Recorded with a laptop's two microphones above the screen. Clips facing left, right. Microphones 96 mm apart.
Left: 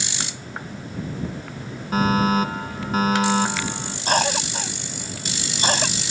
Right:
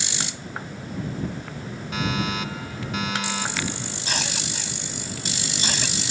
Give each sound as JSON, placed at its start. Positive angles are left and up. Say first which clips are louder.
{"t": 1.9, "sound": "a fire alarm", "louder": "left 8 dB", "side_deg": 40}
{"t": 4.1, "sound": "a cough", "louder": "left 11 dB", "side_deg": 45}